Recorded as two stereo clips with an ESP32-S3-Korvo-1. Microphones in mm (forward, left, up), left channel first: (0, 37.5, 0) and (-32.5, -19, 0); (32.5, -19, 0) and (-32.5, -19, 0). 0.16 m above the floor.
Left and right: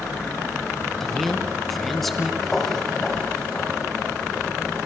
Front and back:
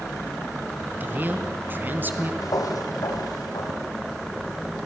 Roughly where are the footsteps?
Ahead right.